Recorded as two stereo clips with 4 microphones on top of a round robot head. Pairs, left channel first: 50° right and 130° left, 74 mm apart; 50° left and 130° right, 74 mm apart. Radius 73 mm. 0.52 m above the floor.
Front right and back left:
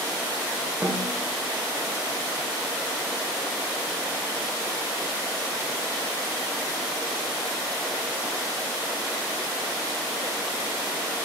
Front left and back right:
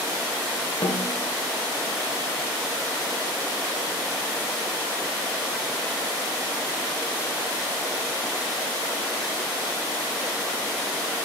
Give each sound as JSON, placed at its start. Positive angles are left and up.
{"t": 0.8, "sound": "a snare drum", "azimuth_deg": 80, "distance_m": 1.3}